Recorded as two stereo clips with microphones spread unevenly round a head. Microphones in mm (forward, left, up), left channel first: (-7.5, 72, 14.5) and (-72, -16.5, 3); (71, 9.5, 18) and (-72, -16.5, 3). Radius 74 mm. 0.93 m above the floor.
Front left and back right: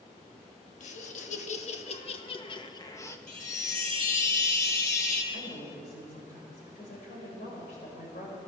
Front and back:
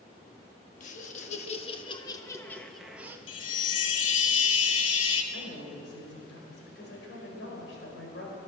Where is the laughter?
50° left, 1.9 m; by 3.2 s 120° left, 1.1 m.